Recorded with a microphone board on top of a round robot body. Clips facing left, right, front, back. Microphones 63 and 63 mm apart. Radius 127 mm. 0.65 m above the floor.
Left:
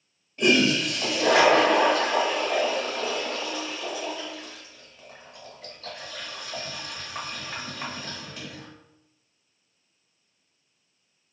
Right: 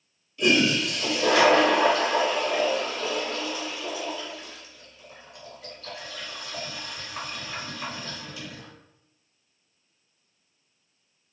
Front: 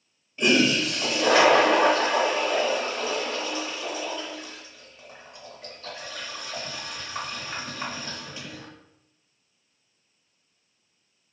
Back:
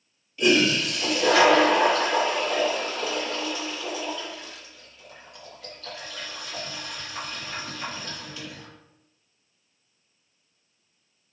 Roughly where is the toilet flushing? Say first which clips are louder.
Left 1 dB, even; ahead left.